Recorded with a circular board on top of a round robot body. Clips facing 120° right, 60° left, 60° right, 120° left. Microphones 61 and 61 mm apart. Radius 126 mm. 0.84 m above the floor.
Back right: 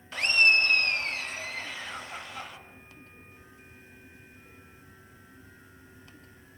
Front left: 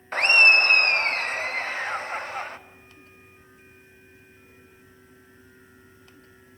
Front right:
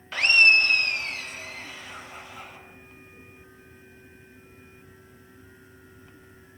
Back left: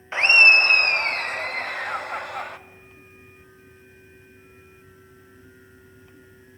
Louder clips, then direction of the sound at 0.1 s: Front left 6 dB, back left 4 dB; 65° left.